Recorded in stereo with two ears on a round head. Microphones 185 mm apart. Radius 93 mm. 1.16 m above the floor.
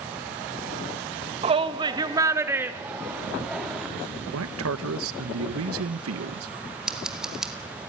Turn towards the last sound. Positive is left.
turn(degrees=-5)  # may be behind; listen again after turning